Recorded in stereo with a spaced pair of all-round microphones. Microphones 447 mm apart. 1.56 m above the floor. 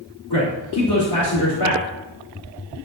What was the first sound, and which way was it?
A man speaking, 55° left (ahead or behind).